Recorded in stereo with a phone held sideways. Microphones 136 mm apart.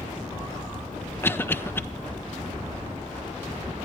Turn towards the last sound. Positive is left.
turn(degrees=15)  # may be behind; listen again after turning